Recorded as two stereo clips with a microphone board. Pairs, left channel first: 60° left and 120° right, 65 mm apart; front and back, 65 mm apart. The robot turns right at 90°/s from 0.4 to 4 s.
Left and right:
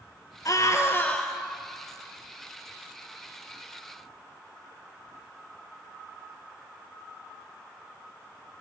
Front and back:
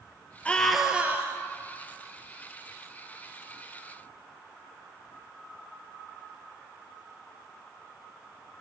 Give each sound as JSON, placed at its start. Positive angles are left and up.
{"t": 0.5, "sound": "a scream", "azimuth_deg": 65, "distance_m": 2.5}